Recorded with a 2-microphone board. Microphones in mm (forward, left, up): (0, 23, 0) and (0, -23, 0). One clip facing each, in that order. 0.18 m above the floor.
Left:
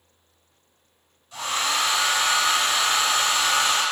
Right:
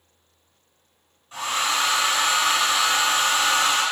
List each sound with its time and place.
1.3 s a hair dryer: 25° right (ahead or behind), 1.9 m